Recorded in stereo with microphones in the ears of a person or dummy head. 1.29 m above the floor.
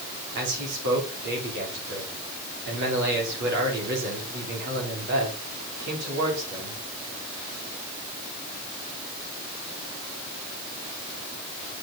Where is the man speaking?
60° right (ahead or behind), 3.5 m.